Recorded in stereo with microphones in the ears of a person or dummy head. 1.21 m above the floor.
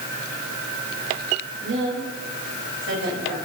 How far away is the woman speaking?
About 6 m.